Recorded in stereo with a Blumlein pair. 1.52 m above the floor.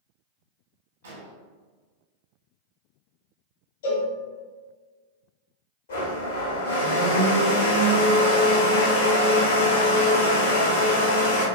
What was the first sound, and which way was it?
An explosion, 65° right.